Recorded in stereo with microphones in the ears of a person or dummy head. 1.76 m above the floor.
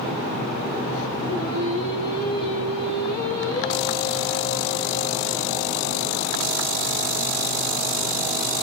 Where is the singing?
25° left (ahead or behind), 2 m.